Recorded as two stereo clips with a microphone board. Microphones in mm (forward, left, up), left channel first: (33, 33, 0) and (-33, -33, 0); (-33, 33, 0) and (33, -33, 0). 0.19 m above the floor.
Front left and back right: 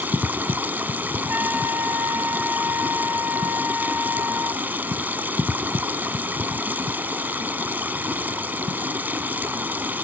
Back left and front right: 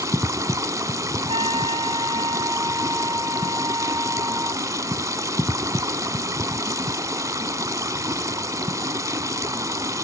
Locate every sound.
0.0 s running water: 75° right, 0.8 m
1.3 s a trumpet: 65° right, 5.5 m